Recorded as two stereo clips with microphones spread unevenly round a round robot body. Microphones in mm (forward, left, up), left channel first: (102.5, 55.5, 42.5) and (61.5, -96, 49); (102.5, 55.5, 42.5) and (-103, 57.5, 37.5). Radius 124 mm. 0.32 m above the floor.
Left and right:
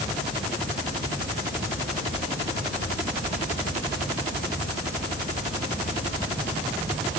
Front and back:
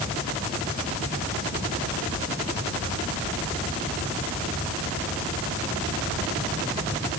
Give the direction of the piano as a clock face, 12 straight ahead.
No piano in this recording.